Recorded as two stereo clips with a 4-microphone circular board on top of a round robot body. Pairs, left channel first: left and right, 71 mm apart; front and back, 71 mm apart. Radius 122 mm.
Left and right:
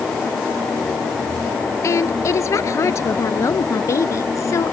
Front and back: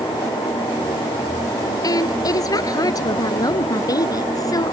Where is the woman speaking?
40° left.